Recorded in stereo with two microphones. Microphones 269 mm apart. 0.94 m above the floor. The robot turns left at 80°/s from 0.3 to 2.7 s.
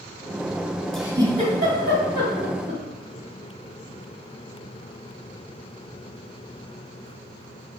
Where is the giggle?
5° left (ahead or behind), 2.5 m; by 2.8 s 40° right (ahead or behind), 2.5 m.